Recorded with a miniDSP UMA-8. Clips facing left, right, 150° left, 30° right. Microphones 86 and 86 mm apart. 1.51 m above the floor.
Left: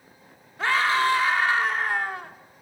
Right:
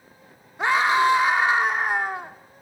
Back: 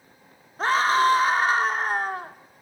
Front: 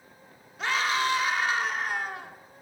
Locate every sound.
0.6 s a scream: 160° right, 3 m